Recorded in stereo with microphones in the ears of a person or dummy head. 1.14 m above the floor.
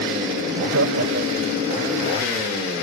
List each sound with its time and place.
0.5 s laughter: 75° right (ahead or behind); by 1.7 s 65° right (ahead or behind)